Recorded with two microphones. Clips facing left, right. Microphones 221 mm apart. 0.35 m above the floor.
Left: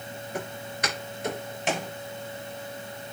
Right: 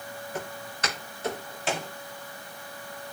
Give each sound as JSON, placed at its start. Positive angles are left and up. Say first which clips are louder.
{"t": 0.3, "sound": "footsteps", "louder": "left 3 dB", "side_deg": 10, "distance_m": 7.0}